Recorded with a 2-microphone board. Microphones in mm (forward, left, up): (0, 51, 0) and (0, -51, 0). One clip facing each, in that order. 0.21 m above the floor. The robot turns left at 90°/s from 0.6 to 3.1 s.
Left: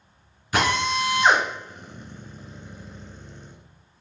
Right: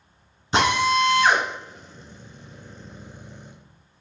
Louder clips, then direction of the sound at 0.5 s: Right 3 dB; 25° right (ahead or behind).